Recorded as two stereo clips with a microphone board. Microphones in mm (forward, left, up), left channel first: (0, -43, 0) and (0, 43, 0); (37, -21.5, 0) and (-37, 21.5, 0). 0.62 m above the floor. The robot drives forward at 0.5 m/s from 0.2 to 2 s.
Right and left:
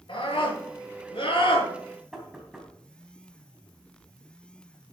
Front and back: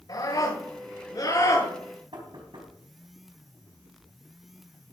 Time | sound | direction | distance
0.1 | a scream | 65° right | 7.5 m
2.1 | knocking | 175° left | 3 m